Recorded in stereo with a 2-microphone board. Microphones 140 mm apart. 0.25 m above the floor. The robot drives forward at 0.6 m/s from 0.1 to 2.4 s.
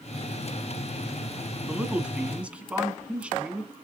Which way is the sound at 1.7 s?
10° right (ahead or behind).